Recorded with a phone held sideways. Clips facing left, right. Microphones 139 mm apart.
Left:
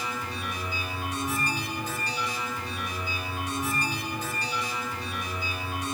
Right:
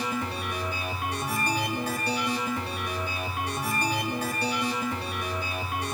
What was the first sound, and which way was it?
A machine running, 65° right (ahead or behind).